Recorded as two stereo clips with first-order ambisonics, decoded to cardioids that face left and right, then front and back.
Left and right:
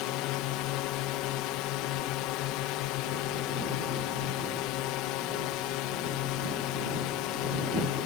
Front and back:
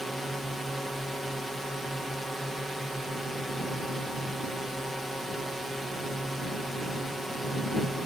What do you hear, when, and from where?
0.0 s a drone: 90° left